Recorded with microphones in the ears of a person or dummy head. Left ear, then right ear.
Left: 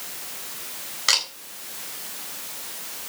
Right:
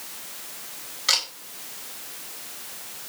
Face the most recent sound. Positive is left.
turn(degrees=40)  # may be behind; listen again after turning